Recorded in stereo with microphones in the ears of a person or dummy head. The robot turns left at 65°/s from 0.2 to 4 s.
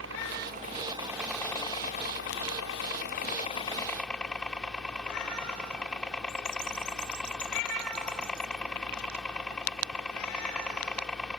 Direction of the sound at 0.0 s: 105° right.